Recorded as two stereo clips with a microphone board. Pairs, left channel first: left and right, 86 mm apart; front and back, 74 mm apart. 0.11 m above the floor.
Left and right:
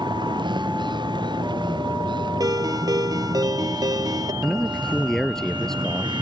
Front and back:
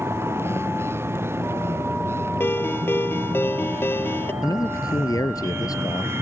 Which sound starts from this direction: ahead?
A man speaking, at 4.4 s.